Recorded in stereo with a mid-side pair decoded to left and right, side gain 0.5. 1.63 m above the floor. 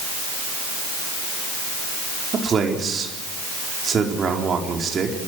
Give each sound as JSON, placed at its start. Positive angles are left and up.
{"t": 2.3, "sound": "a man speaking", "azimuth_deg": -40, "distance_m": 4.5}